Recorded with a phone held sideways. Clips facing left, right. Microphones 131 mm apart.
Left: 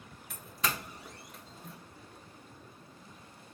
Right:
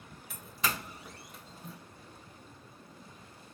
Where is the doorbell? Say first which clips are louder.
Even; centre (ahead or behind), 0.6 m.